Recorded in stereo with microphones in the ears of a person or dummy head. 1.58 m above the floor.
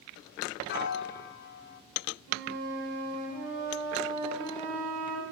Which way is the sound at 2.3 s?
65° right (ahead or behind).